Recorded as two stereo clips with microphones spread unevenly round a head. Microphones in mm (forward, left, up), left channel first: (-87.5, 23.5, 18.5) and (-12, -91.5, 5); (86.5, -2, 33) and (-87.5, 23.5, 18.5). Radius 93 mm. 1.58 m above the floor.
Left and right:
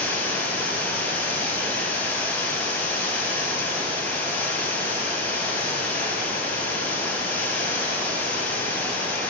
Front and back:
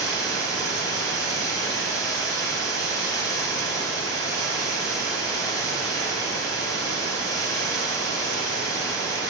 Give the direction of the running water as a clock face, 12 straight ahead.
10 o'clock.